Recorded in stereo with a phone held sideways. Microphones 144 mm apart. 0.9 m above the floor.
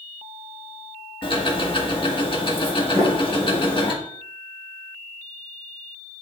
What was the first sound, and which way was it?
Ticking, 35° left (ahead or behind).